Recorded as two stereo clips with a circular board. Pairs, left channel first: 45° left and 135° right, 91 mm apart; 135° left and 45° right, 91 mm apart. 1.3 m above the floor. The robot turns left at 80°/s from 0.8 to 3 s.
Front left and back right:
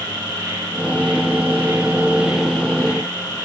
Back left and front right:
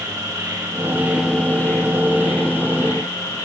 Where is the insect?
95° right, 2.5 m; by 3.5 s 90° left, 2.5 m.